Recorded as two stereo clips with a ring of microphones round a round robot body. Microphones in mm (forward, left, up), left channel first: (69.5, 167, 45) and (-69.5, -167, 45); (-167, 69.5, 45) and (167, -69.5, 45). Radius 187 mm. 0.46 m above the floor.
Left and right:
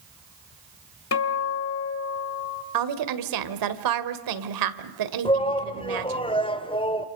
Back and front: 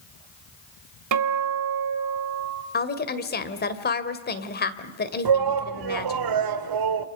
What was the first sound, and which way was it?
A guitar, 15° left.